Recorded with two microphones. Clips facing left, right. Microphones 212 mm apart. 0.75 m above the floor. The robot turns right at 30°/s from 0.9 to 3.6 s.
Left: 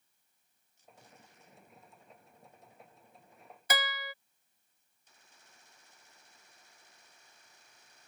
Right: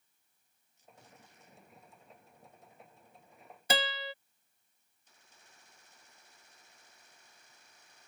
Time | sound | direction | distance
3.7 | a guitar | 30° right (ahead or behind) | ?